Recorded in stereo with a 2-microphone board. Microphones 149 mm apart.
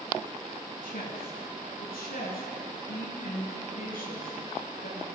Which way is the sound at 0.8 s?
80° left.